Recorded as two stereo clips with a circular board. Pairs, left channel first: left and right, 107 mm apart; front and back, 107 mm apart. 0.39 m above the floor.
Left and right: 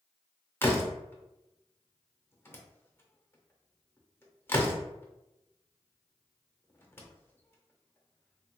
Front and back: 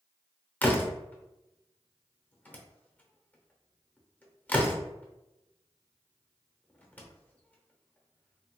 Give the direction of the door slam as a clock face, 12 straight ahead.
10 o'clock.